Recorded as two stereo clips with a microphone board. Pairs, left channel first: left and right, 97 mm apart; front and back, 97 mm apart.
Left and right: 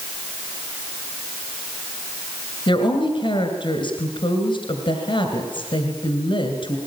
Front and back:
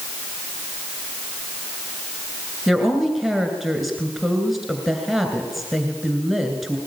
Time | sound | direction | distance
2.7 | a woman speaking | 90° left | 2.5 m